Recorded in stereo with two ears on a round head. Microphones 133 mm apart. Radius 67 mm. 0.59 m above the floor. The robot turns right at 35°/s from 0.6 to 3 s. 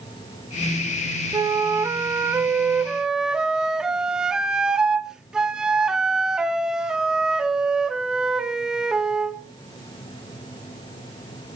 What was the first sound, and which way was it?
A flute, 20° right (ahead or behind).